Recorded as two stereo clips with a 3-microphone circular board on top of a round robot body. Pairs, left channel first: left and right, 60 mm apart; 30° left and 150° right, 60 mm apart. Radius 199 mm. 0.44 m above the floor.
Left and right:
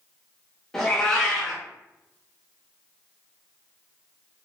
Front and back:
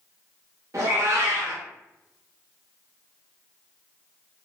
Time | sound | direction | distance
0.7 | a cat meowing | 170° left | 0.5 m